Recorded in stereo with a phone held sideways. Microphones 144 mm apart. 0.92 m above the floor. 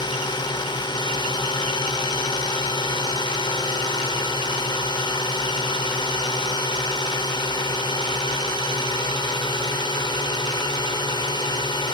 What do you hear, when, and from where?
0.0 s a drone: 30° left (ahead or behind)